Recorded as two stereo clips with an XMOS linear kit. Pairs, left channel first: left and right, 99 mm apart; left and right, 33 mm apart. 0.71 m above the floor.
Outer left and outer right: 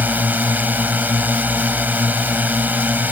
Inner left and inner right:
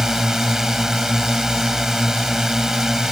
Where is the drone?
15° right (ahead or behind).